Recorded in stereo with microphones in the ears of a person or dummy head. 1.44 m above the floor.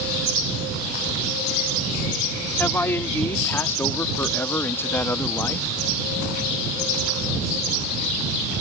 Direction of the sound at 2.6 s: 15° left (ahead or behind).